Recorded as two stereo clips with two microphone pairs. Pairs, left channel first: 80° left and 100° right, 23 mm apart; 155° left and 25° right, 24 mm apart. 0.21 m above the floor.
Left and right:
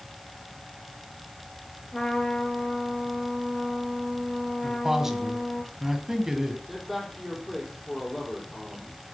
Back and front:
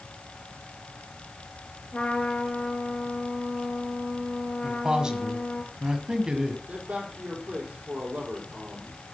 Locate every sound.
1.9 s a trumpet: 140° left, 3.5 m
4.6 s a man speaking: 50° right, 1.7 m
6.7 s a man speaking: 20° right, 6 m